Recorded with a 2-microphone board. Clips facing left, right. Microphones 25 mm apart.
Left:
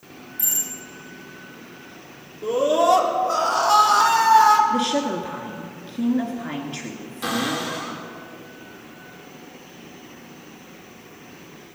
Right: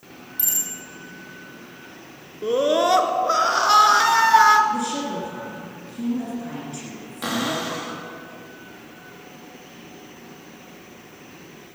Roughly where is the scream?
Right.